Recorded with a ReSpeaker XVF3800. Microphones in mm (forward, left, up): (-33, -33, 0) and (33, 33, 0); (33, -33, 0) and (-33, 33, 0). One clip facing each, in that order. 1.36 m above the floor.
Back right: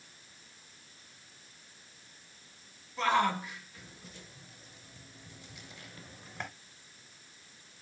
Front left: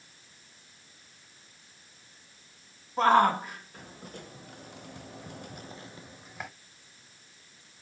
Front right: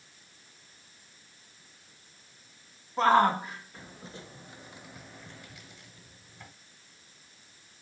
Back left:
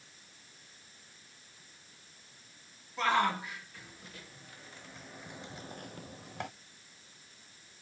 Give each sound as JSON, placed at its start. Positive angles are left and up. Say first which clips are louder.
{"t": 3.0, "sound": "a shout", "louder": "front left 7 dB, front right 7 dB", "azimuth_deg": 5, "distance_m": 2.0}